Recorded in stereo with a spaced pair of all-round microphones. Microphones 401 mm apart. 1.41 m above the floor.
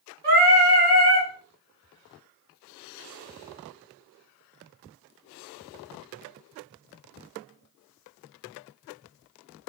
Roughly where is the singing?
Right.